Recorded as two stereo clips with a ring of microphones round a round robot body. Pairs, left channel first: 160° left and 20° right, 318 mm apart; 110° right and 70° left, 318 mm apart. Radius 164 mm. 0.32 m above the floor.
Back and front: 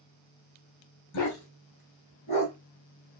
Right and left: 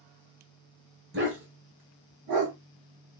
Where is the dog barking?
125° left, 1.1 m; by 2.5 s 80° left, 1.3 m.